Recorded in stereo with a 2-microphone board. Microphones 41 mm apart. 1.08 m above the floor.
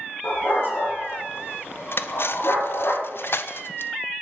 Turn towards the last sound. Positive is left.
turn(degrees=65)  # may be behind; listen again after turning